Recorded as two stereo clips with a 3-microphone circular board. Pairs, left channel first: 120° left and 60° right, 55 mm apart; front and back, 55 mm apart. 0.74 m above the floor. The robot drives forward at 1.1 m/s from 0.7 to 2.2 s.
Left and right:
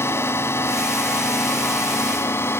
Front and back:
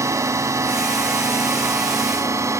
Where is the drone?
155° left; by 2.6 s 160° left.